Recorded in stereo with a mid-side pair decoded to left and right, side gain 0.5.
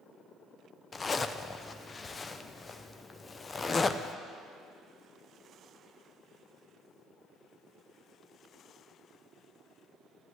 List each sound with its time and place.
0.9 s a zipper: 30° left, 0.6 m